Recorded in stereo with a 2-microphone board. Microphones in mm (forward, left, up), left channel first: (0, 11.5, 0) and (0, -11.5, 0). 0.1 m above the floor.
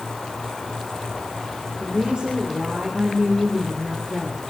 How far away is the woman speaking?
About 3.5 m.